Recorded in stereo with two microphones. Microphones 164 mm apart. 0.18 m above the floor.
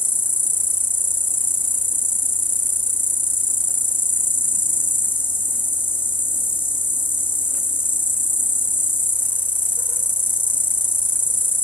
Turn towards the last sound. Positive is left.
turn(degrees=10)  # may be behind; listen again after turning